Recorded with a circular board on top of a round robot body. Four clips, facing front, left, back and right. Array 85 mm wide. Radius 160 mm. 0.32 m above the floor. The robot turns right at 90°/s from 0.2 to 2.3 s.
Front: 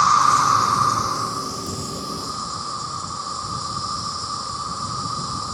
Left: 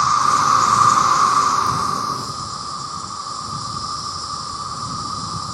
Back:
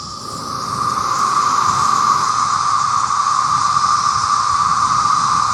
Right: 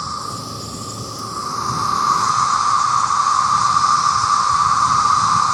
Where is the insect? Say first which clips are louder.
Left 12 dB, front 13 dB; 35° left; by 5.5 s 135° right.